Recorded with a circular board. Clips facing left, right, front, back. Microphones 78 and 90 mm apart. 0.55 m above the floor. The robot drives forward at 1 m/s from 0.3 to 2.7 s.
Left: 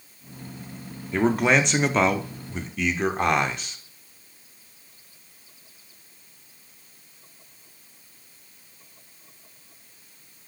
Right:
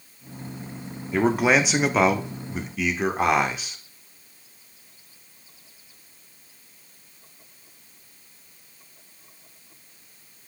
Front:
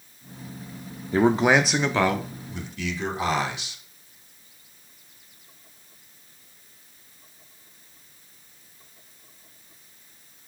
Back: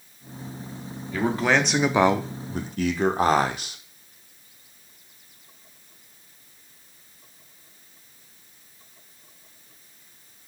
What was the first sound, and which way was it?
A man speaking, 5° right.